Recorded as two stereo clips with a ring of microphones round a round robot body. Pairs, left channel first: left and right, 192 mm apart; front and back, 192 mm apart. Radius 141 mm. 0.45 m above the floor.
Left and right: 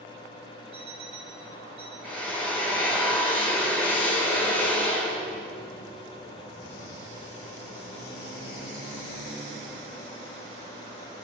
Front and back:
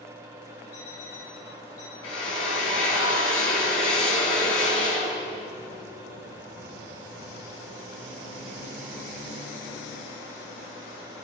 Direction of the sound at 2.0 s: 5° right.